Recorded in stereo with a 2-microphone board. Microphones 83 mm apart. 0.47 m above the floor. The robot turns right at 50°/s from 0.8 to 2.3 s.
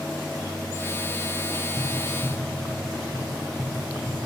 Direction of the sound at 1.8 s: 15° right (ahead or behind).